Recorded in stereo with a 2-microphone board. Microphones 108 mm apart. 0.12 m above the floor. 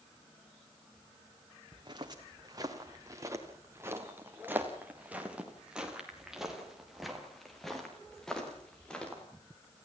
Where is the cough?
No cough in this recording.